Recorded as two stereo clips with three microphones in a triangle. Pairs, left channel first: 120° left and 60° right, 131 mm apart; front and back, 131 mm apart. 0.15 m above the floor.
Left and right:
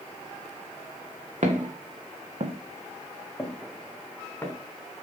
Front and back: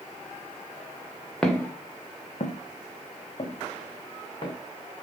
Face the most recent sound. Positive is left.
turn(degrees=45)